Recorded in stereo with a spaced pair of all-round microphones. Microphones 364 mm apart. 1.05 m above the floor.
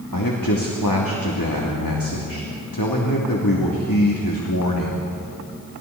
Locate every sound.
0.1 s a man speaking: 65° left (ahead or behind), 3 m